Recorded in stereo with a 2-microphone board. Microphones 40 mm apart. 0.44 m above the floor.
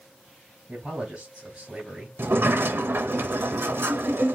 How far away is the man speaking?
About 3 m.